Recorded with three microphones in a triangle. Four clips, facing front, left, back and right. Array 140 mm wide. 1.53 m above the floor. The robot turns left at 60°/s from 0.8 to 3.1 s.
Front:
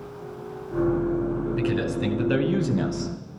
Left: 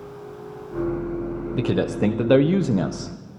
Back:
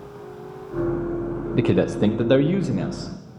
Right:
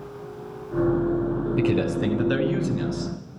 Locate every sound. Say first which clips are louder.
1.6 s a man speaking: left 1 dB, back 10 dB; 175° left, 1.2 m; by 3.1 s 80° left, 1.2 m